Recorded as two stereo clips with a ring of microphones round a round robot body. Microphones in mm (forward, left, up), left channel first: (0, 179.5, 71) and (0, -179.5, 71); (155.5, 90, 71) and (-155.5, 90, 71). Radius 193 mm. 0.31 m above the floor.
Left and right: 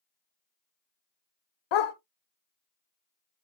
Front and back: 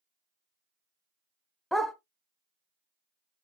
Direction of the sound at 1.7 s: 90° left.